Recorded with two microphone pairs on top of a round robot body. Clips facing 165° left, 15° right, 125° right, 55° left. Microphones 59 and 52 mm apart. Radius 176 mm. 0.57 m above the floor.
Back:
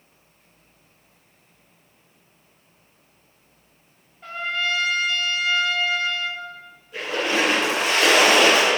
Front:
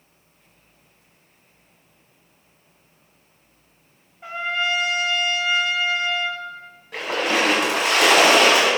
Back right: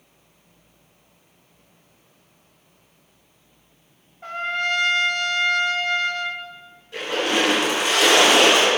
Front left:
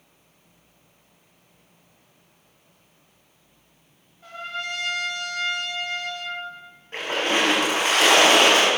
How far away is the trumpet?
About 1.6 m.